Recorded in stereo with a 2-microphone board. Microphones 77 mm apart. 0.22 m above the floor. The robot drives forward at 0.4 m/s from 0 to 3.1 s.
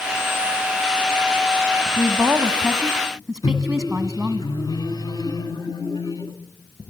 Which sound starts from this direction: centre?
A woman speaking, at 2.0 s.